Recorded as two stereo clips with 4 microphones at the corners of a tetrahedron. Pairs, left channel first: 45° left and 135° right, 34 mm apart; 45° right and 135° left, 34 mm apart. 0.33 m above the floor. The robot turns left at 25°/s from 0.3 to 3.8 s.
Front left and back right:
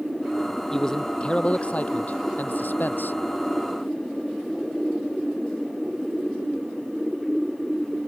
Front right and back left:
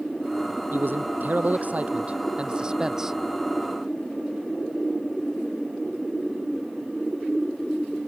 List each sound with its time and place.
0.7 s a man speaking: 120° left; by 3.2 s 60° left